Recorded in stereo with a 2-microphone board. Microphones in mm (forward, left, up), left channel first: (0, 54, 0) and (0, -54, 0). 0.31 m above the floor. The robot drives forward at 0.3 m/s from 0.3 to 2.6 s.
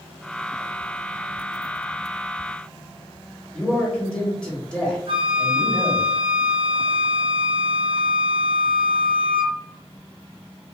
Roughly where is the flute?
Right.